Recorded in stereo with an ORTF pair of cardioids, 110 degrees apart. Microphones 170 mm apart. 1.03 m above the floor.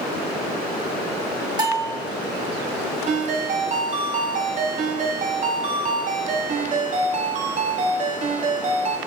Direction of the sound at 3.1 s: 50° right.